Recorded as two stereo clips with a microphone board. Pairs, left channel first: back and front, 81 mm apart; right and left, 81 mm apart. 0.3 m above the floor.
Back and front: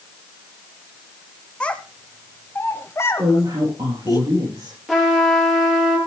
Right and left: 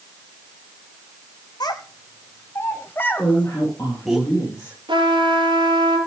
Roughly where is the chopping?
No chopping in this recording.